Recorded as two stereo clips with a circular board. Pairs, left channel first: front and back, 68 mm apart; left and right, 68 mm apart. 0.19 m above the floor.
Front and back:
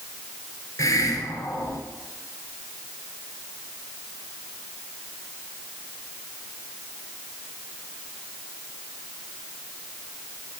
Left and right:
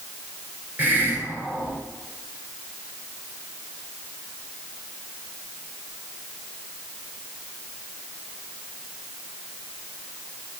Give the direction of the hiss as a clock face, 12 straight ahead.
1 o'clock.